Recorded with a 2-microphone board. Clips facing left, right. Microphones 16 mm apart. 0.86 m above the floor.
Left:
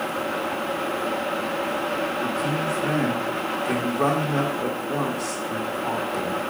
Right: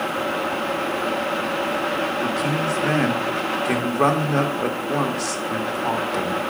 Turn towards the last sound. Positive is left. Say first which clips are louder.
# right 2 dB
turn(degrees=-70)  # may be behind; listen again after turning